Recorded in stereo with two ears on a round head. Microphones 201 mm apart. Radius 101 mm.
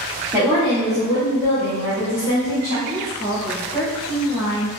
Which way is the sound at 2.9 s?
25° left (ahead or behind).